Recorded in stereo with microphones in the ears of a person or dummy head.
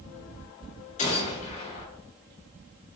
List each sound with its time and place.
1.0 s a gunshot: 35° left (ahead or behind), 2.5 m